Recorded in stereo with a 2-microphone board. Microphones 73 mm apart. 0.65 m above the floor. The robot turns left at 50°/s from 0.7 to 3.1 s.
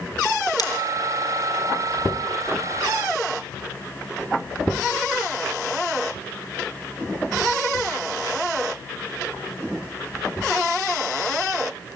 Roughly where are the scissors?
Left.